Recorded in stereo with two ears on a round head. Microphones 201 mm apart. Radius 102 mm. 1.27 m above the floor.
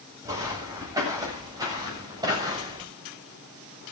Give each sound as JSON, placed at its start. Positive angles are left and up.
{"t": 0.2, "sound": "footsteps", "side_deg": -15, "distance_m": 9.0}